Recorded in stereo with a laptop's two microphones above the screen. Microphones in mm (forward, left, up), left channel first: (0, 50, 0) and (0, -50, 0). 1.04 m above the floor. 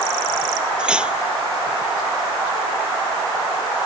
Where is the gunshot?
No gunshot in this recording.